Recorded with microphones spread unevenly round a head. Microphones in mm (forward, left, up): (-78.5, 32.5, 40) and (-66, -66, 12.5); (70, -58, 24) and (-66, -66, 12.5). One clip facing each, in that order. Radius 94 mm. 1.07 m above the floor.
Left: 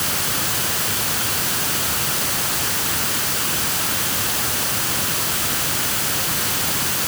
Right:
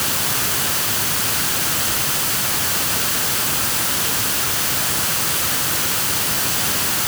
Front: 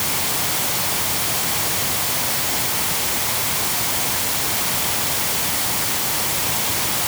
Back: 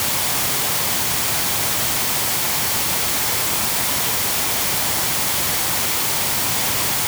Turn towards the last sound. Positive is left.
No sound to turn to.